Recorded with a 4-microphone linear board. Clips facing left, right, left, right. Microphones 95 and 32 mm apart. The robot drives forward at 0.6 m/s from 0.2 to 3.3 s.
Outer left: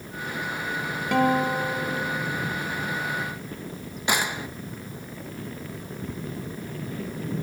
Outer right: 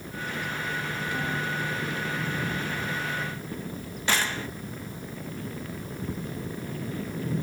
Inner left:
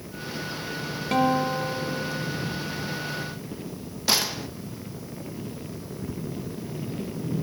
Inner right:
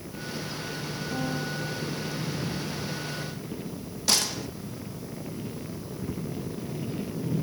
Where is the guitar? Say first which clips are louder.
Outer left 12 dB, inner left 11 dB; 70° left (ahead or behind); by 2.3 s 75° left (ahead or behind).